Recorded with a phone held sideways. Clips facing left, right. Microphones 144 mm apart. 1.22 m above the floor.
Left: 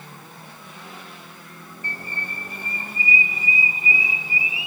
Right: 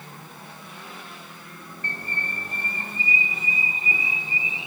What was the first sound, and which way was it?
A bird, 10° left (ahead or behind).